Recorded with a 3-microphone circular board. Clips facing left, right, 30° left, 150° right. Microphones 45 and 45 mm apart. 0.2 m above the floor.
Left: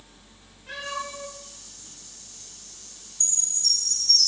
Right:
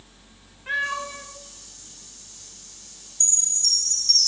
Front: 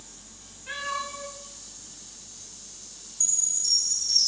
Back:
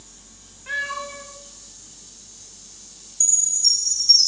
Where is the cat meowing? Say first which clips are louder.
Right 7 dB, back 4 dB; 120° right, 5.5 m.